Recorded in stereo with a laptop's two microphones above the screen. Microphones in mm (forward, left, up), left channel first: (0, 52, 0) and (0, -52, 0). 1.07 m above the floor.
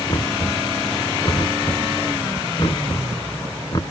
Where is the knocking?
45° left (ahead or behind).